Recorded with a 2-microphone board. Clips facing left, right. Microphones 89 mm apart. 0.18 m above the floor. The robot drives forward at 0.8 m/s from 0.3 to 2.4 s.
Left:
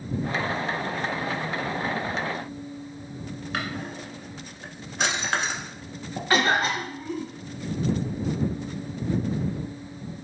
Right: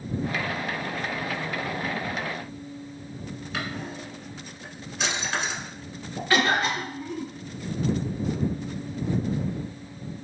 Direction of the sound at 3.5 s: 65° left (ahead or behind).